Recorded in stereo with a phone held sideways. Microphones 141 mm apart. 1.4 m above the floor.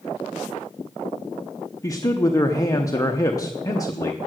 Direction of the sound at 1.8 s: 25° left (ahead or behind).